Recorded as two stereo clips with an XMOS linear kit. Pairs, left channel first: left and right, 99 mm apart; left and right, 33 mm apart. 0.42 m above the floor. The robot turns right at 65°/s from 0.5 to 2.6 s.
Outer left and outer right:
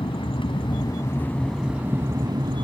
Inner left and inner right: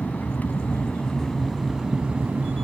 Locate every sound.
0.0 s an aircraft: 110° left; by 2.6 s 115° right